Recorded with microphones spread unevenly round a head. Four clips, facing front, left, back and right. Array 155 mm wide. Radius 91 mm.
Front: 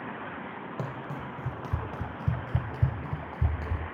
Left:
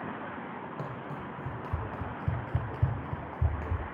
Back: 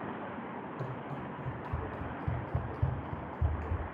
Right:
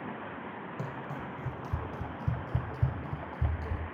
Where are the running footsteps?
5° right, 3 m; by 3.8 s 20° left, 1.8 m.